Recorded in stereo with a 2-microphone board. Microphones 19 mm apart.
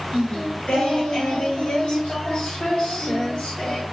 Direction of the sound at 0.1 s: 85° left.